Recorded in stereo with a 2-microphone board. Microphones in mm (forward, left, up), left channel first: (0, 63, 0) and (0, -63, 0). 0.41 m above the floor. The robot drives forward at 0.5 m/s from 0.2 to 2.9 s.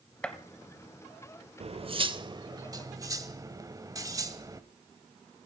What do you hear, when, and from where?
0.2 s a gunshot: 10° left (ahead or behind), 1.0 m
1.6 s cutlery clinking: 50° right (ahead or behind), 0.6 m; by 4.6 s 25° right (ahead or behind), 1.0 m